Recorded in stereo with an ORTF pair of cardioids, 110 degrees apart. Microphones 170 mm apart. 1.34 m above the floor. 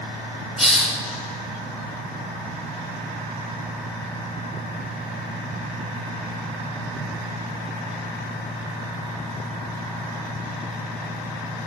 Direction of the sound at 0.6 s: 5° right.